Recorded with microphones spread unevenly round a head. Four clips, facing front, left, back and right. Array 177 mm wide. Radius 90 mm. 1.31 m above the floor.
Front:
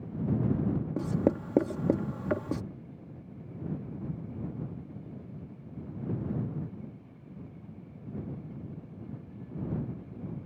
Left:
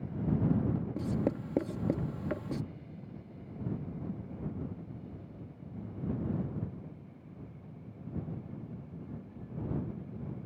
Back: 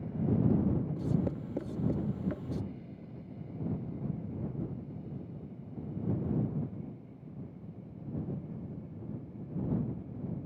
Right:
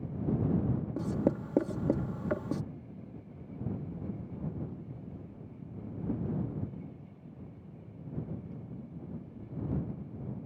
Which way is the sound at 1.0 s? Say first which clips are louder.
Right 5 dB, front 5 dB; 5° right.